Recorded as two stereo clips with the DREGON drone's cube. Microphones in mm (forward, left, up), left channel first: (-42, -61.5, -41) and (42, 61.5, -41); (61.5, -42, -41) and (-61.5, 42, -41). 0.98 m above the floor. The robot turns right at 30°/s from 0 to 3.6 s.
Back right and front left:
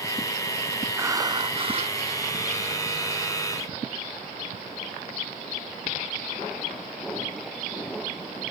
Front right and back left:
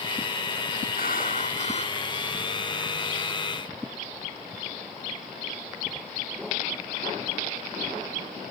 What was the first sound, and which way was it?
Breathing, 15° right.